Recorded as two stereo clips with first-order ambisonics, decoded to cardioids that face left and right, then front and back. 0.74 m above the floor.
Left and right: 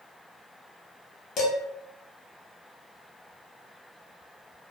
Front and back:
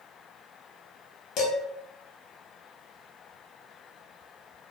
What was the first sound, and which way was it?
Dishes clattering, 40° left.